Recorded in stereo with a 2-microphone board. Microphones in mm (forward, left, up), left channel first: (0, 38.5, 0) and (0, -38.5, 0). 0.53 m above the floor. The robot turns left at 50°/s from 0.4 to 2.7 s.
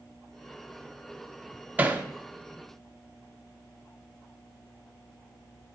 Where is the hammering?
20° right (ahead or behind), 0.7 m; by 2.0 s 25° right (ahead or behind), 0.7 m.